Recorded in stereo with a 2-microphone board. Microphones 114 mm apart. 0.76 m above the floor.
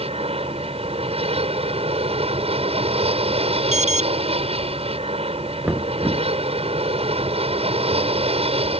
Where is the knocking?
20° right (ahead or behind).